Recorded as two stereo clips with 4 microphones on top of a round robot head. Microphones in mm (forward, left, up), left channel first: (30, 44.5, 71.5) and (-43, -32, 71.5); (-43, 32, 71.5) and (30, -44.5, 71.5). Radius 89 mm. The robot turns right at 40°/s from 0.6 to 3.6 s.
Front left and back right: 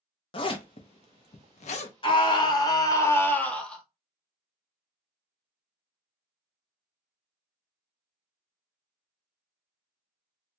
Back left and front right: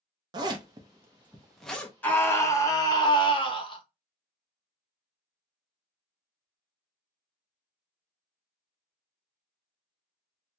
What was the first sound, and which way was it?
A zipper, 5° left.